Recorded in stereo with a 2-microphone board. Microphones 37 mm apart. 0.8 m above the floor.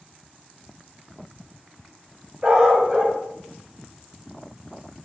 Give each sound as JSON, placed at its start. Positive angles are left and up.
{"t": 2.4, "sound": "a dog barking", "side_deg": -25, "distance_m": 1.6}